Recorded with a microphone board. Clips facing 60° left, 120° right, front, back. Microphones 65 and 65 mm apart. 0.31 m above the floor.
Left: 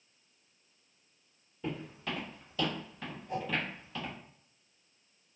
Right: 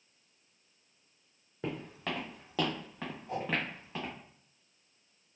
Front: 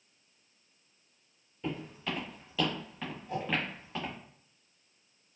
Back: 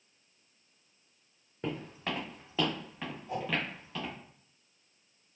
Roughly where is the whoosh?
Right.